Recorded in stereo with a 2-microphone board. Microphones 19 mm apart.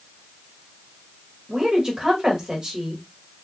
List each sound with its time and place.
1.5 s a woman speaking: 35° right (ahead or behind), 1.7 m